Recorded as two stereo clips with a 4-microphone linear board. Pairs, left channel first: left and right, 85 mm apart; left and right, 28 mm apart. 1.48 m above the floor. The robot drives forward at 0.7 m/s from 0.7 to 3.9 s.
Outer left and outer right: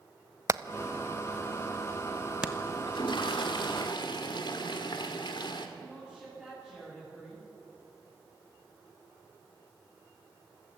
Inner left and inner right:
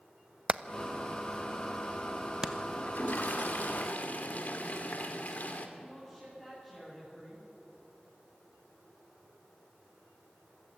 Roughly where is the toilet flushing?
Left.